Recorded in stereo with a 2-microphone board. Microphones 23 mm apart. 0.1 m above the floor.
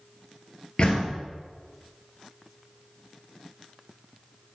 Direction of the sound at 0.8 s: 40° left (ahead or behind).